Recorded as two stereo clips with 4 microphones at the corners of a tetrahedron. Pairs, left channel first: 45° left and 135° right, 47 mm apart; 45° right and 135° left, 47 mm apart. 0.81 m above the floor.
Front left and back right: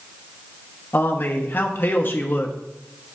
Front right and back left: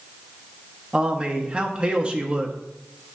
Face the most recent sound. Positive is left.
turn(degrees=75)